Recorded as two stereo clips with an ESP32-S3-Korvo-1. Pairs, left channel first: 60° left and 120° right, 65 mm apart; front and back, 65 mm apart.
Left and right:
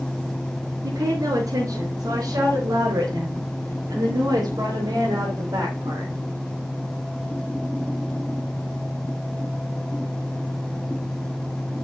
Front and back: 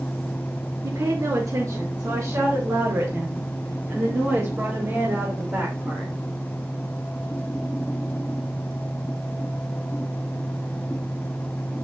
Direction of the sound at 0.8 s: 145° right.